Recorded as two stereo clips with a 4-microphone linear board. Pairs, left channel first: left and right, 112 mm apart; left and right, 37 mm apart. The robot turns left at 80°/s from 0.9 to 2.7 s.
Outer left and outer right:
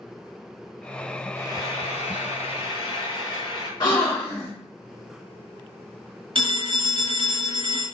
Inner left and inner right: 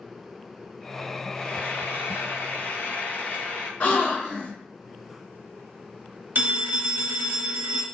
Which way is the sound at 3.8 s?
35° left (ahead or behind).